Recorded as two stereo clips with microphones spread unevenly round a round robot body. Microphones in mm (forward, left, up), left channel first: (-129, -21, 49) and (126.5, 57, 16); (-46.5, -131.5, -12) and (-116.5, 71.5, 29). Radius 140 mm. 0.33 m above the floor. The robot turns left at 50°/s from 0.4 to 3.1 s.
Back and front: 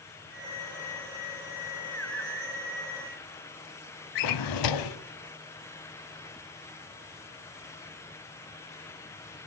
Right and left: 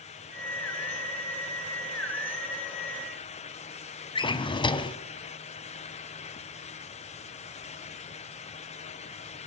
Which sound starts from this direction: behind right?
A drawer, at 4.2 s.